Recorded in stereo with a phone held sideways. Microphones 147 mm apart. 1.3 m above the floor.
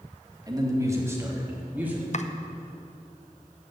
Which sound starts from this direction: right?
A man speaking, at 0.5 s.